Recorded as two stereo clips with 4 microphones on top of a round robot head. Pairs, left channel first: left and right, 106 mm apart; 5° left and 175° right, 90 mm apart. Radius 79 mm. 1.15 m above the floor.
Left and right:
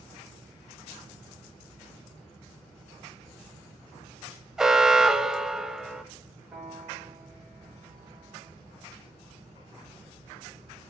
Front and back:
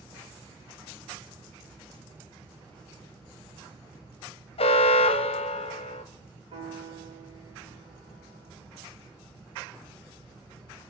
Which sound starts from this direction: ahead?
An alarm, at 4.6 s.